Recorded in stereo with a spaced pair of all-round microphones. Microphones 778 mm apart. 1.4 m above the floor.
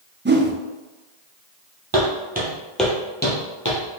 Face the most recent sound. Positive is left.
turn(degrees=30)  # may be behind; listen again after turning